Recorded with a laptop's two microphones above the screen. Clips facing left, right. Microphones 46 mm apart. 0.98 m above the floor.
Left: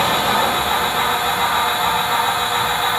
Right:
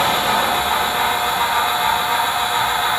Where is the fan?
20° right (ahead or behind), 1.2 m.